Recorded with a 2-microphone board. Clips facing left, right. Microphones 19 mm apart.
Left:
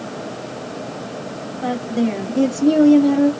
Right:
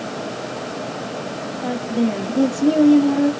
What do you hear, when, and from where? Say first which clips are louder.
1.6 s a woman speaking: left 1 dB; 35° left (ahead or behind), 2 m; by 3.3 s 15° left (ahead or behind), 1.4 m